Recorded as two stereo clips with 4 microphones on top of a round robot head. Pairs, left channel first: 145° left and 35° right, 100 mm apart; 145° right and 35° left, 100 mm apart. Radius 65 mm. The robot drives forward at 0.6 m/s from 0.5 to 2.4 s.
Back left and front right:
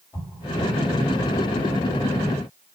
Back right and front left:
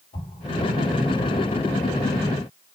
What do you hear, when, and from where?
0.1 s an explosion: 150° right, 3.5 m